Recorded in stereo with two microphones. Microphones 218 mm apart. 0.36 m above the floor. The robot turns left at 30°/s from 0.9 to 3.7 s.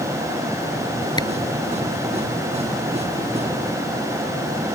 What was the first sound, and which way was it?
A camera shutter, 20° left (ahead or behind).